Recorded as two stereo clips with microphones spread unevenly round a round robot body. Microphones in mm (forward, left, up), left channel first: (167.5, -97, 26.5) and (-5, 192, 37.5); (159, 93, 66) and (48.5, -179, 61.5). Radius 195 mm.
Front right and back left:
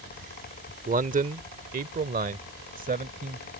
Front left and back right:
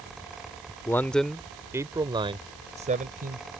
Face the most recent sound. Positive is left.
turn(degrees=-170)